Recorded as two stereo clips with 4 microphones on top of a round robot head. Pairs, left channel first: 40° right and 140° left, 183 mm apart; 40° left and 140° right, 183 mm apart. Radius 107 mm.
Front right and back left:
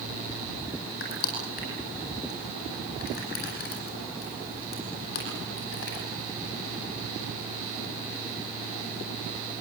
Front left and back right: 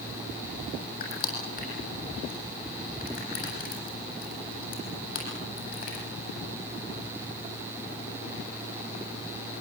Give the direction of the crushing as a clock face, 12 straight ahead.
12 o'clock.